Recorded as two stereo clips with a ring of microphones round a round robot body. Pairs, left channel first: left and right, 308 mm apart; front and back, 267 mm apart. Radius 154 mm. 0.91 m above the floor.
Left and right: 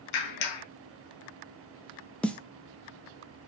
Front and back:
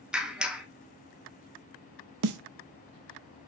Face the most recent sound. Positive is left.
turn(degrees=175)